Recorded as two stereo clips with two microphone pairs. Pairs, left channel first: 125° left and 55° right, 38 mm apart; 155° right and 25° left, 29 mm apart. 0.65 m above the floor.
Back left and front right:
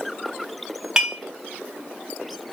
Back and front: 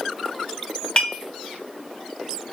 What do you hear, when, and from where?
1.0 s dishes clattering: 125° right, 0.7 m